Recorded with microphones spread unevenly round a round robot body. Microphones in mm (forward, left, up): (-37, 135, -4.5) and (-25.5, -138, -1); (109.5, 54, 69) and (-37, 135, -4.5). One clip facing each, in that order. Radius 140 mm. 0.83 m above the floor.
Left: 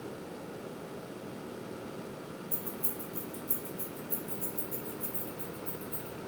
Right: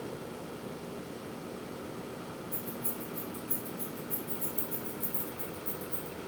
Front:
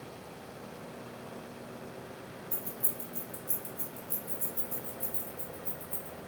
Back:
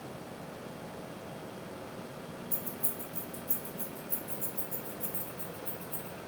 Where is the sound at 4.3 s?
10° right, 1.8 m.